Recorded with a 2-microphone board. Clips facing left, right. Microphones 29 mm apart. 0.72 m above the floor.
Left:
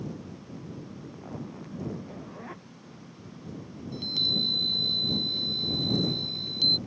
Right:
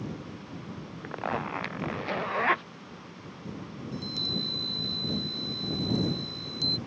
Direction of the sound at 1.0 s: 80° right.